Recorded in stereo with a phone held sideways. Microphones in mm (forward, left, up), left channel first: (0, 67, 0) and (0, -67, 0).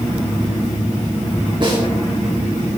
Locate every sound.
1.6 s a snare drum: 40° right (ahead or behind), 6.5 m